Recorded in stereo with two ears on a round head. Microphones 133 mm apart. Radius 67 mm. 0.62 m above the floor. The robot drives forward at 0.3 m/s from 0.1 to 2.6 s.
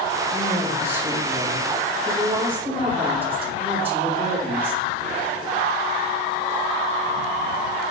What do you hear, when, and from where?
0.3 s a woman speaking: 15° right (ahead or behind), 3 m